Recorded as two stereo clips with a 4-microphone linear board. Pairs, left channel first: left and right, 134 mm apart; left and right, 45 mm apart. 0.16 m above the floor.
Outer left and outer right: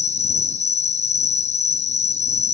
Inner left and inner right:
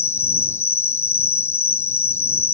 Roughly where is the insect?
Left.